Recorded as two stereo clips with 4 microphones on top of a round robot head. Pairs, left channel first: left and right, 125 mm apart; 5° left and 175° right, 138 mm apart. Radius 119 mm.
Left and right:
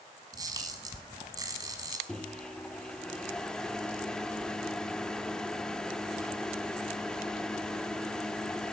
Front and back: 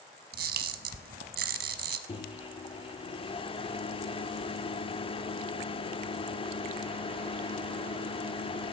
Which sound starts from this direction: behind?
A camera shutter, at 0.3 s.